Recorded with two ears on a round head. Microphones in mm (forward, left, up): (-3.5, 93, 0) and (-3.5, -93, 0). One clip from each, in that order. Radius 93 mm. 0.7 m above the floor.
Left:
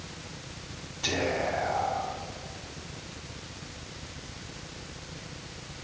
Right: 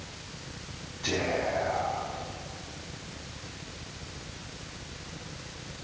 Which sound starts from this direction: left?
Whispering, at 1.0 s.